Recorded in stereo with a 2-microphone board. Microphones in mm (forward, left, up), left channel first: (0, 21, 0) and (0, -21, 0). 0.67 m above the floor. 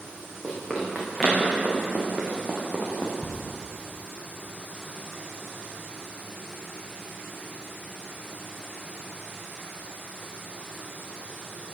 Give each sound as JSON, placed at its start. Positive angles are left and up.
{"t": 0.4, "sound": "running footsteps", "side_deg": -5, "distance_m": 5.0}
{"t": 3.2, "sound": "ticking", "side_deg": -10, "distance_m": 3.5}